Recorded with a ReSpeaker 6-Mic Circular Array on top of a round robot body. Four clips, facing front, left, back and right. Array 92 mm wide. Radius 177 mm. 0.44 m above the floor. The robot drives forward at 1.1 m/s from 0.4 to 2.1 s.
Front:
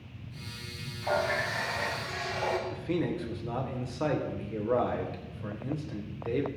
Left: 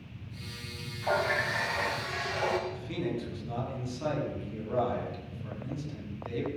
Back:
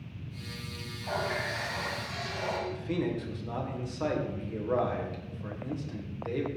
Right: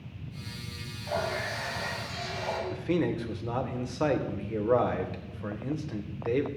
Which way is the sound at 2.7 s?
80° right.